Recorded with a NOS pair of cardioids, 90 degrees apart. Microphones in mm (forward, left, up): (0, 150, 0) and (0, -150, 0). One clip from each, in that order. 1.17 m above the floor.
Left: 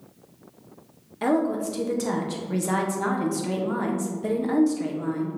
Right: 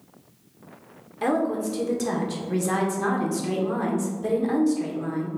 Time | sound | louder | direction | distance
1.2 | a woman speaking | even | 5° left | 1.2 m